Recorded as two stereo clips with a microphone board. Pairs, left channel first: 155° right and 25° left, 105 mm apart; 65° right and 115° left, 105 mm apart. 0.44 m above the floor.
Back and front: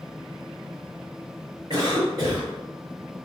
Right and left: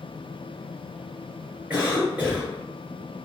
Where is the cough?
45° left, 1.6 m.